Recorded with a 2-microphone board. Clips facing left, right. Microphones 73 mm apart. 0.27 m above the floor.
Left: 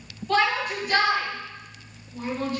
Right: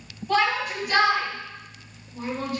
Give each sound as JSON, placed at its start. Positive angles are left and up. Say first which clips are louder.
{"t": 0.3, "sound": "a shout", "louder": "even", "side_deg": -10, "distance_m": 2.5}